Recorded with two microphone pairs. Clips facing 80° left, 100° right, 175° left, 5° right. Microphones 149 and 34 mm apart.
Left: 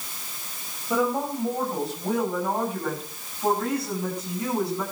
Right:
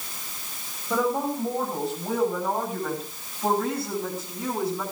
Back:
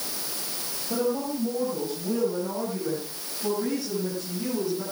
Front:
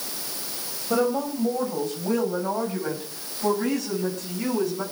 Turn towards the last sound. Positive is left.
turn(degrees=-15)